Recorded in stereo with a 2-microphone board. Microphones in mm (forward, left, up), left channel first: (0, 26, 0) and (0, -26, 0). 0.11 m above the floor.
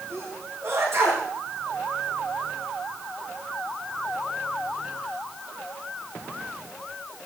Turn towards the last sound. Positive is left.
turn(degrees=-60)  # may be behind; listen again after turning